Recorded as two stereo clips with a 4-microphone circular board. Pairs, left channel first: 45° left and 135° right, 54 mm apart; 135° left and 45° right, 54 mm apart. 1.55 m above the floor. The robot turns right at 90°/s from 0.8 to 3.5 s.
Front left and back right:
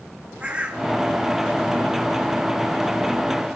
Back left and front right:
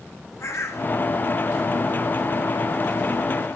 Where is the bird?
160° left, 3.5 m; by 0.9 s 165° left, 3.5 m.